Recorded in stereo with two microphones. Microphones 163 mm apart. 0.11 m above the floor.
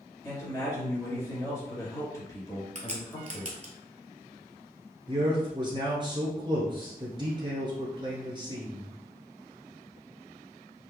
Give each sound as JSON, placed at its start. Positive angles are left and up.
{"t": 0.2, "sound": "a man speaking", "side_deg": 20, "distance_m": 1.7}
{"t": 2.8, "sound": "a crack", "side_deg": -50, "distance_m": 0.9}
{"t": 5.1, "sound": "a man speaking", "side_deg": -30, "distance_m": 1.3}